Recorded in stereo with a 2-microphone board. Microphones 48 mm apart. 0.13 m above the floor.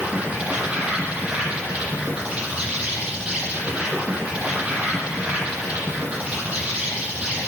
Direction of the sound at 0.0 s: 25° right (ahead or behind).